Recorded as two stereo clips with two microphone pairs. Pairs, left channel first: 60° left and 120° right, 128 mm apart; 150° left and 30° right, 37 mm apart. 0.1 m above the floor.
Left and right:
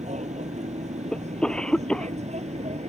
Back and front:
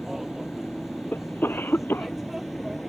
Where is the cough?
145° left.